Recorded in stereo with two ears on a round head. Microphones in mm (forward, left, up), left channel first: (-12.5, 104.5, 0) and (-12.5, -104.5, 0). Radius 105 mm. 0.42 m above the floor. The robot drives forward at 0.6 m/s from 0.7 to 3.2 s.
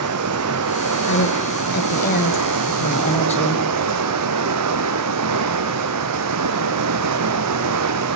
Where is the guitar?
No guitar in this recording.